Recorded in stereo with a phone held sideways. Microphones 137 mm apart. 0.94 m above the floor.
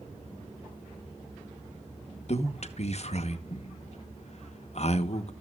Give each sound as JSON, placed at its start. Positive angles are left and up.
{"t": 2.3, "sound": "a man speaking", "side_deg": 50, "distance_m": 0.9}